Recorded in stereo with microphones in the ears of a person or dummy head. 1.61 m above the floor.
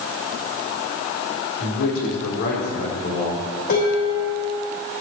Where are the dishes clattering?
55° left (ahead or behind), 4.5 m.